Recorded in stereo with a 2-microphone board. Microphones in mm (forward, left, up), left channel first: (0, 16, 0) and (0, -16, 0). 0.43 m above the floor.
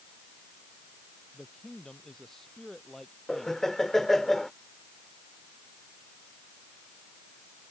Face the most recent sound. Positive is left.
turn(degrees=10)  # may be behind; listen again after turning